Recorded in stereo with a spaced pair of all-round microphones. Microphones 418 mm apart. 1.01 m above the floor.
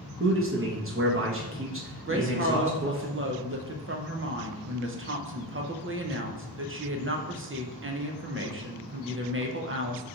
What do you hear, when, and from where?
0.2 s a man speaking: 30° right (ahead or behind), 0.7 m
2.1 s a woman speaking: 30° right (ahead or behind), 0.6 m